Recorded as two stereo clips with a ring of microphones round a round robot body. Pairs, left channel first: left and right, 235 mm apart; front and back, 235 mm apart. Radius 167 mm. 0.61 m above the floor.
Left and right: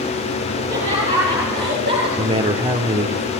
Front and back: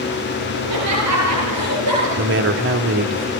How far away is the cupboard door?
No cupboard door in this recording.